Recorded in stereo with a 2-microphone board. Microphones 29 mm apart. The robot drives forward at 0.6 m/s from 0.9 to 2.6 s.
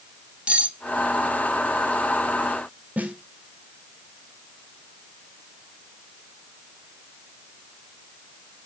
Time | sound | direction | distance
0.5 | cutlery clinking | 40° right (ahead or behind) | 1.5 m
3.0 | a snare drum | 55° right (ahead or behind) | 2 m